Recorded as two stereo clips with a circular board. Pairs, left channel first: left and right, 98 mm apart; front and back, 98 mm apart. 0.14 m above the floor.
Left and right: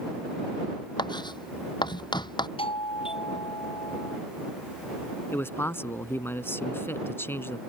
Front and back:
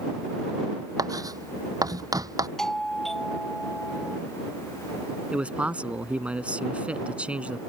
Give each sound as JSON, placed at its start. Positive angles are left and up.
{"t": 1.0, "sound": "writing", "azimuth_deg": 130}
{"t": 2.6, "sound": "a doorbell", "azimuth_deg": 85}
{"t": 5.3, "sound": "a man speaking", "azimuth_deg": 120}